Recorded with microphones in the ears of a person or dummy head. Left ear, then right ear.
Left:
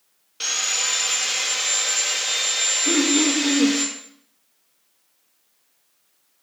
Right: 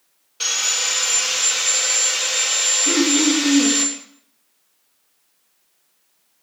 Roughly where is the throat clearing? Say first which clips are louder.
Right 1 dB; centre.